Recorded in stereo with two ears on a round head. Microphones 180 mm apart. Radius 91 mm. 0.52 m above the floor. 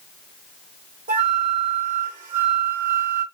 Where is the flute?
45° right (ahead or behind), 1.8 m.